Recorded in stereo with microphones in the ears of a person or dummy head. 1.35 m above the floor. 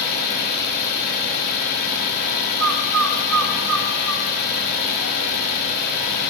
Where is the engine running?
50° left (ahead or behind), 4 m.